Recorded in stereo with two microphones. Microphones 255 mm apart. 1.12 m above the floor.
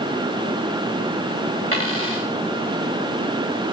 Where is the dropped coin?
55° right (ahead or behind), 7.5 m.